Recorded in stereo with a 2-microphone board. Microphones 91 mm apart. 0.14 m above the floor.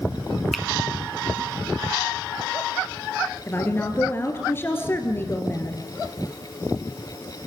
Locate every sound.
0.5 s a finger snap: centre (ahead or behind), 1.1 m
3.5 s a woman speaking: 25° left (ahead or behind), 2.5 m